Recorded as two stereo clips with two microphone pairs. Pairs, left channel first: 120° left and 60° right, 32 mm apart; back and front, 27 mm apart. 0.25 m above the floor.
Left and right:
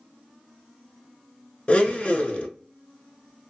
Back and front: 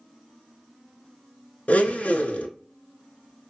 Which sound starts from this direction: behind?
A blender, at 1.7 s.